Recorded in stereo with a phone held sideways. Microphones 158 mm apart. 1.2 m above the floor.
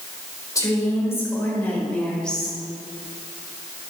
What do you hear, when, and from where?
0.6 s a woman speaking: 20° left (ahead or behind), 5.5 m; by 2.6 s centre (ahead or behind), 6 m